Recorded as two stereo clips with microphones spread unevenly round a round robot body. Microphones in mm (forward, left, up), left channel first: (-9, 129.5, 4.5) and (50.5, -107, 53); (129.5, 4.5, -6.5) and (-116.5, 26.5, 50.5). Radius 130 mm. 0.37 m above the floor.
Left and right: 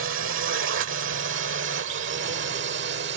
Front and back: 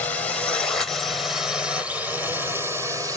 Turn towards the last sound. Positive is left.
turn(degrees=-100)